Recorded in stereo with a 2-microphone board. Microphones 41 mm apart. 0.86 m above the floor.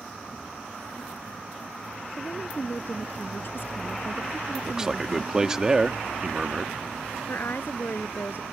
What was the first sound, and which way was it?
A woman speaking, 55° left (ahead or behind).